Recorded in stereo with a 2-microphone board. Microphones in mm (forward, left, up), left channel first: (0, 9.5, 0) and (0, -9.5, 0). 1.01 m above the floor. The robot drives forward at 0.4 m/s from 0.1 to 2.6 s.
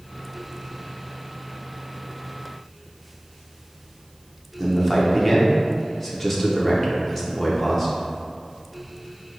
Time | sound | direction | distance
4.6 | a man speaking | 10° left (ahead or behind) | 0.7 m